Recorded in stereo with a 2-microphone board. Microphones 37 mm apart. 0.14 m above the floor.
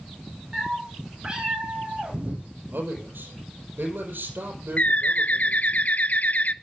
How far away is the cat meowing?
About 5 m.